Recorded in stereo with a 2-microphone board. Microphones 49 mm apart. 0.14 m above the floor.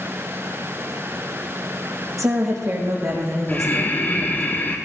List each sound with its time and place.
2.2 s a woman speaking: 80° right, 5.5 m; by 4.5 s 70° right (ahead or behind), 5 m
3.5 s breathing: 35° left (ahead or behind), 2 m